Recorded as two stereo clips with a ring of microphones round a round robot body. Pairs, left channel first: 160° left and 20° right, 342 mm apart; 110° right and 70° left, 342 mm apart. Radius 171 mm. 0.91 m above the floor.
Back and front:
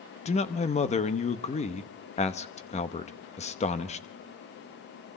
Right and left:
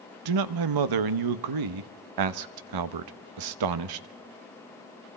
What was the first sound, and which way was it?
A man speaking, 85° left.